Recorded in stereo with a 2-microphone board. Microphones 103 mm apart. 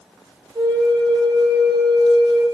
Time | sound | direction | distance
0.6 | a flute | 55° right (ahead or behind) | 1.6 m